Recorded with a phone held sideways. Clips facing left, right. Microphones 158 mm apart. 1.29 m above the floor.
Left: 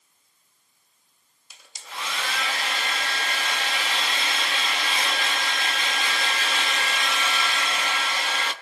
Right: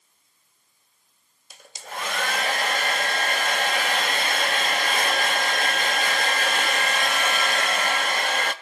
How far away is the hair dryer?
About 0.9 m.